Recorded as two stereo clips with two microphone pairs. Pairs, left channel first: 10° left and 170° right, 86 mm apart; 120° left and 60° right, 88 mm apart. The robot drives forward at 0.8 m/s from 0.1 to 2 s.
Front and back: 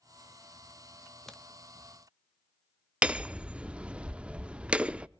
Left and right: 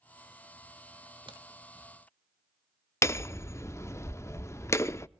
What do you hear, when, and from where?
1.3 s a crack: 75° right, 1.4 m; by 1.4 s 80° right, 1.4 m
3.0 s hammering: 125° left, 0.5 m